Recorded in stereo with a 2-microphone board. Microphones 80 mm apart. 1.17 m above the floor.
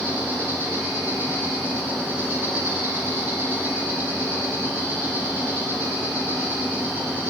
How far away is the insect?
About 1.5 m.